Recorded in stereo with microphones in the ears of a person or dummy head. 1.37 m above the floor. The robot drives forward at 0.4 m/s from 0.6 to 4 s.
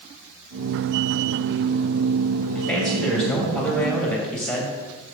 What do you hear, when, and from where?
2.5 s a man speaking: 5° left (ahead or behind), 3 m